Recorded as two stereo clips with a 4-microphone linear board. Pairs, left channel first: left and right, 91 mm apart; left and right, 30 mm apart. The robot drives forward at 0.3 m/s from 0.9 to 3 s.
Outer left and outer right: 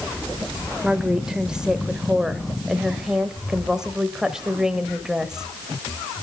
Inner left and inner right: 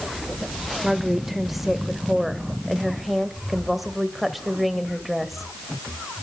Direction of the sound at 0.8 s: 10° right (ahead or behind).